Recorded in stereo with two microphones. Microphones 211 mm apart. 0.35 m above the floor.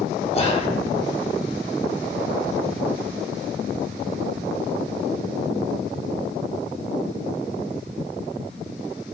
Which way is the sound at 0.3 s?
30° left (ahead or behind).